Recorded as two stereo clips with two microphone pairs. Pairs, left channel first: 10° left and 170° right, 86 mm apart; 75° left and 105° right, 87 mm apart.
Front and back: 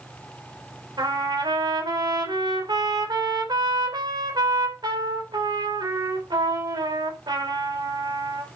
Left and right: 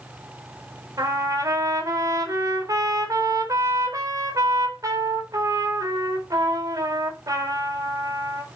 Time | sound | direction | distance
1.0 | a trumpet | 145° right | 4 m